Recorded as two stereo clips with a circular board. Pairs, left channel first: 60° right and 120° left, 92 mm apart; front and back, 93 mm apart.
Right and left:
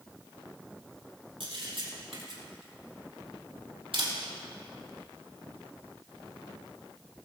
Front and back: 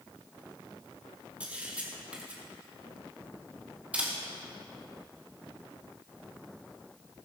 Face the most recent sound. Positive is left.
turn(degrees=105)